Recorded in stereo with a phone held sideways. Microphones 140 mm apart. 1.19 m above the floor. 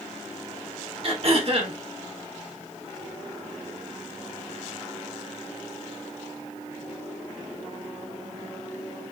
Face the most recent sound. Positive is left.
turn(degrees=-45)  # may be behind; listen again after turning